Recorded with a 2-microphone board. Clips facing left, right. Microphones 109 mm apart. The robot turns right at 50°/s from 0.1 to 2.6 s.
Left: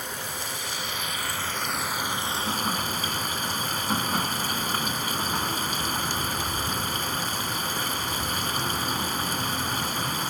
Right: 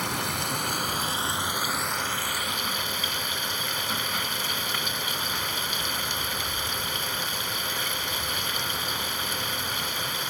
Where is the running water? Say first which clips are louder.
Right 5 dB; 85° right; by 10.3 s 40° left.